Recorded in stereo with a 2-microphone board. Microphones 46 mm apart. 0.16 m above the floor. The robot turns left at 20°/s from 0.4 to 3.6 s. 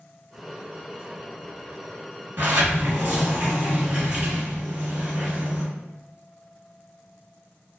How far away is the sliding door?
About 1.1 m.